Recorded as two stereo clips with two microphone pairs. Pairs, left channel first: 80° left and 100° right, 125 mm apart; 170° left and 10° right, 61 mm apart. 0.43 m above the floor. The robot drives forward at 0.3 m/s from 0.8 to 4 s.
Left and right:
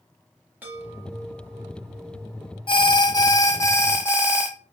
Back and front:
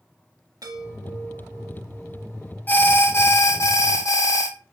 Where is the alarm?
110° left, 0.6 m; by 4.5 s 145° left, 0.8 m.